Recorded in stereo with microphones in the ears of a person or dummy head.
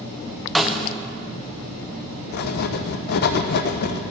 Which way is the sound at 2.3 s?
50° left (ahead or behind).